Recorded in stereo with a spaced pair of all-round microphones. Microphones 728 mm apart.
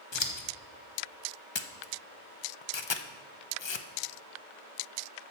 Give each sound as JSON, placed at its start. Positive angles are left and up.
{"t": 0.1, "sound": "scissors", "side_deg": 40, "distance_m": 0.9}
{"t": 1.6, "sound": "a camera shutter", "side_deg": 40, "distance_m": 0.5}